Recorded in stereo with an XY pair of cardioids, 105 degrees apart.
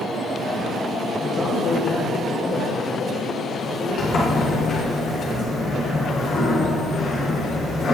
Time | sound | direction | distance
1.2 | a man speaking | 50° left | 6 m
4.0 | a sliding door | 50° left | 6.5 m